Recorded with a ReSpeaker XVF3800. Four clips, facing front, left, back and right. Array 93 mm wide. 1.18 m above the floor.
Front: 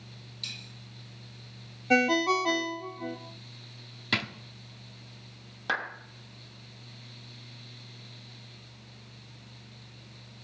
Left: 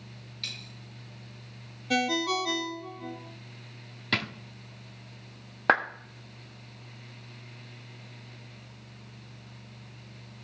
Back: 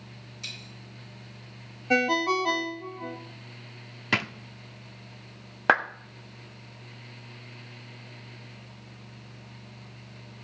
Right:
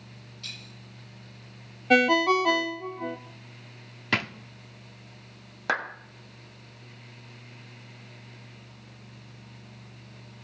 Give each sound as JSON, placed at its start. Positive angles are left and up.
{"t": 0.4, "sound": "a dropped coin", "azimuth_deg": 110, "distance_m": 8.5}
{"t": 1.9, "sound": "a ringtone", "azimuth_deg": -90, "distance_m": 0.7}
{"t": 4.1, "sound": "a drawer", "azimuth_deg": -145, "distance_m": 0.7}
{"t": 5.7, "sound": "a clap", "azimuth_deg": 145, "distance_m": 1.3}